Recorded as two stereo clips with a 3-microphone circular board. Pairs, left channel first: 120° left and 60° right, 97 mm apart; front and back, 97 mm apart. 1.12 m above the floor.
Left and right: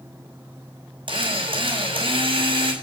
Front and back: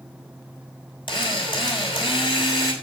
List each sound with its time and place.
1.1 s a drill: 35° right, 6 m